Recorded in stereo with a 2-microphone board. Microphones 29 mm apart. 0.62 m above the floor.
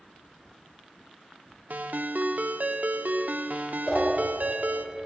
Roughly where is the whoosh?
Left.